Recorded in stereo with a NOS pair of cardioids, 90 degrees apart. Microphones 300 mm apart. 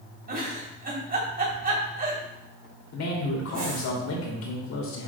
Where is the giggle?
30° right, 4.5 m.